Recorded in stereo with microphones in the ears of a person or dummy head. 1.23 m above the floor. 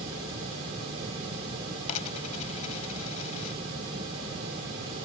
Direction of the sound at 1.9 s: 30° left (ahead or behind).